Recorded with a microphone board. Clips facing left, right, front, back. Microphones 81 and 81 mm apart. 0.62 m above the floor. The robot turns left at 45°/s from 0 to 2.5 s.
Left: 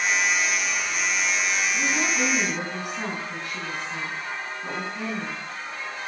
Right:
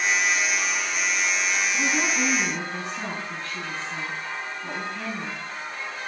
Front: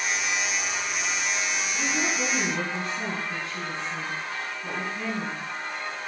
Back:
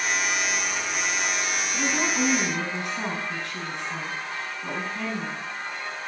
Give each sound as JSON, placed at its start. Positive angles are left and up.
{"t": 1.7, "sound": "a woman speaking", "azimuth_deg": -160, "distance_m": 5.5}